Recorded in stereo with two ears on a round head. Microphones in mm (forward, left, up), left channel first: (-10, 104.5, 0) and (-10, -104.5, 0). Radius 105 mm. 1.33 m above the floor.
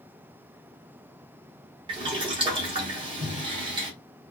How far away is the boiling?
About 1.0 m.